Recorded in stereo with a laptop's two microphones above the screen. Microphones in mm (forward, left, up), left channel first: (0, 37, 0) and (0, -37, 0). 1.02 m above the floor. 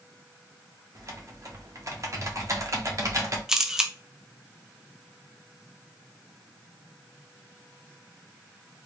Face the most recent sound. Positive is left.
turn(degrees=-5)  # may be behind; listen again after turning